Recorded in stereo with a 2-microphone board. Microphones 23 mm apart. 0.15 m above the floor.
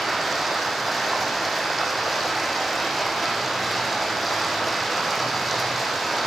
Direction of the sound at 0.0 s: Centre (ahead or behind).